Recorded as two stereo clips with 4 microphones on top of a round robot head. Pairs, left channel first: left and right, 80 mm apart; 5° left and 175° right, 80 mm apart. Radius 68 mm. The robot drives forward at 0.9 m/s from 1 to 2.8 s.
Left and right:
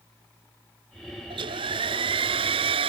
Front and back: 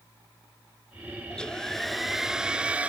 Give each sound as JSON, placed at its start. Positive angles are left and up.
{"t": 1.3, "sound": "a hair dryer", "azimuth_deg": -75}